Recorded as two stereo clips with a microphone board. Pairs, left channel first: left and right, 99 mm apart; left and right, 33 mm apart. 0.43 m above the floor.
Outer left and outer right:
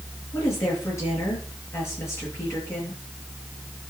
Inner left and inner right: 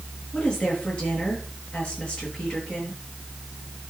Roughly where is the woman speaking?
Left.